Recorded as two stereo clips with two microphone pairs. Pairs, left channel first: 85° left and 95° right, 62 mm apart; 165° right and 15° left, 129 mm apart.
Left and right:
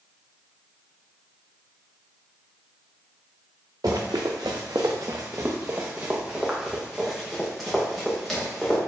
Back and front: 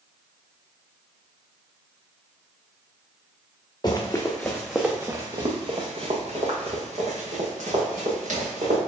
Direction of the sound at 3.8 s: 110° right.